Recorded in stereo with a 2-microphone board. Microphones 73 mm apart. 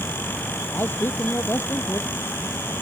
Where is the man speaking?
30° left (ahead or behind).